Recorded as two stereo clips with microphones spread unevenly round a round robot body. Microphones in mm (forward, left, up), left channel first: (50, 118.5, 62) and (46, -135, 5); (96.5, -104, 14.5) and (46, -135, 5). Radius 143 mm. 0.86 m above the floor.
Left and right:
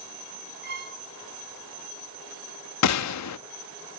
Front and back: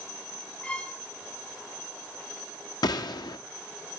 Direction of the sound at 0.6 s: 40° right.